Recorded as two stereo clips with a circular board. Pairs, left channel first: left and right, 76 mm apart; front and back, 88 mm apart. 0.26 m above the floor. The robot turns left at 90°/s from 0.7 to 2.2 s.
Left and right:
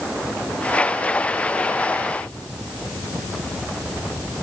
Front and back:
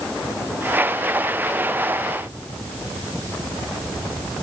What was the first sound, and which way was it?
Only background noise.